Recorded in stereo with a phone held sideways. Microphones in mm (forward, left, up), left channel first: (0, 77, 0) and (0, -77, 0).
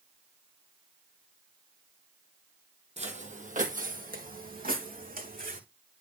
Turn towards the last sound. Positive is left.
turn(degrees=-70)  # may be behind; listen again after turning